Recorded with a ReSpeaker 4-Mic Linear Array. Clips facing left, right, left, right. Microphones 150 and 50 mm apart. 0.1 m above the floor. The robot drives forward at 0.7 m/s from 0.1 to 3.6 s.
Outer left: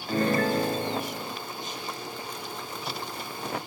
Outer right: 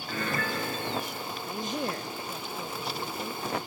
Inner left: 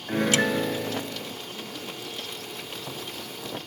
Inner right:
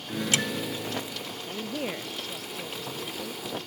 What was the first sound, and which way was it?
A piano, 40° left (ahead or behind).